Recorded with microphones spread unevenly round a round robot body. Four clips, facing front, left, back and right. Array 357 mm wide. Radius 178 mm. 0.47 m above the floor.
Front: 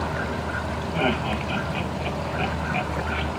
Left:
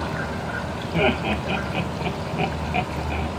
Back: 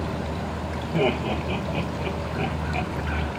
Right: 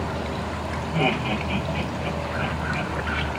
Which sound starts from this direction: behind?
Laughter, at 0.9 s.